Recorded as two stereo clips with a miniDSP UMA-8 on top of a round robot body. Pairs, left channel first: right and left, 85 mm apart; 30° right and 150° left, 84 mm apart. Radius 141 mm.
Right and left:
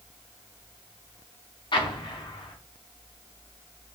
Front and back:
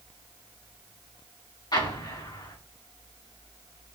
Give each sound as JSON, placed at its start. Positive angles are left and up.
{"t": 1.7, "sound": "an explosion", "azimuth_deg": -70, "distance_m": 3.5}